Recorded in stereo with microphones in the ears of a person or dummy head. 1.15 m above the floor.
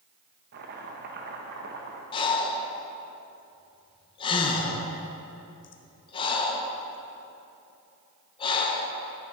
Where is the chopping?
55° right (ahead or behind), 1.1 m.